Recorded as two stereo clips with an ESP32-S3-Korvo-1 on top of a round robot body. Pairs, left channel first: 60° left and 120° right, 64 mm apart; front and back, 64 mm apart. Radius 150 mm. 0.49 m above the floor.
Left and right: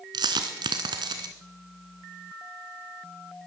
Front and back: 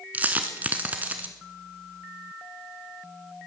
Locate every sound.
0.1 s a dropped coin: 115° right, 0.8 m